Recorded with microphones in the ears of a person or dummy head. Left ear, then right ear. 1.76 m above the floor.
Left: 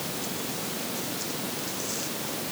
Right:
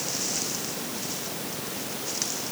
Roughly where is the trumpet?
No trumpet in this recording.